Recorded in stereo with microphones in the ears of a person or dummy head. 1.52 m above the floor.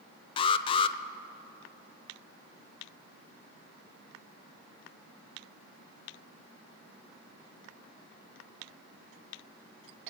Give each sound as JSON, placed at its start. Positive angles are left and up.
{"t": 0.4, "sound": "an alarm", "side_deg": 25, "distance_m": 0.5}